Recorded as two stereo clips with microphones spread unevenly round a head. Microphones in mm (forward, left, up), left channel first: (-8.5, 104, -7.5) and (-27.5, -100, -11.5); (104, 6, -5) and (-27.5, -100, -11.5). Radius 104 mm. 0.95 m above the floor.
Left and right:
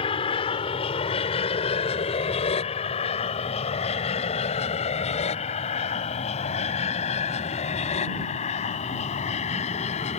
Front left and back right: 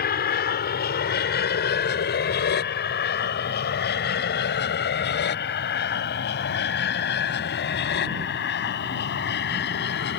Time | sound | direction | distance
0.0 | an aircraft | 20° left | ?